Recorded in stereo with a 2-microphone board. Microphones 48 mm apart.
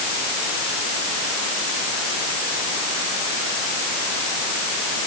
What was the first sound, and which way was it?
Only background noise.